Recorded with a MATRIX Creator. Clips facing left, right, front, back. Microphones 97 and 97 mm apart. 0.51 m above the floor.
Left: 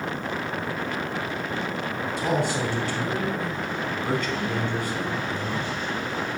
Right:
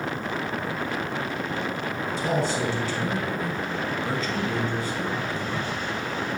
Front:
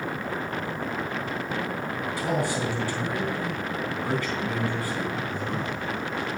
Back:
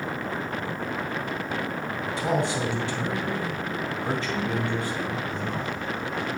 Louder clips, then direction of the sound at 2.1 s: Even, back 2 dB; 115° left.